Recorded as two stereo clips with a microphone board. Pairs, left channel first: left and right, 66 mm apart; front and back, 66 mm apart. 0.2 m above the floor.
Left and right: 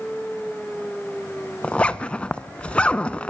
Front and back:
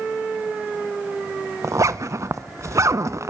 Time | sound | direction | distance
1.6 | a zipper | 160° left | 0.7 m